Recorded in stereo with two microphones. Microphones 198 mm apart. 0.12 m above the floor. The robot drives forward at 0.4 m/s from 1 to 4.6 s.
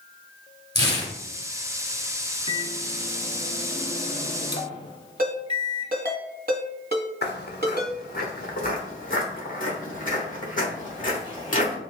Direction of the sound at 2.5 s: 25° left (ahead or behind).